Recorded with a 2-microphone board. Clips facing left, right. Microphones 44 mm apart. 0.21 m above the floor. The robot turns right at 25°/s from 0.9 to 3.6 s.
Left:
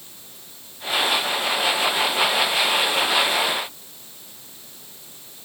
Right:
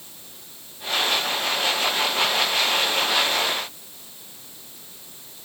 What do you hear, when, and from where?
Only background noise.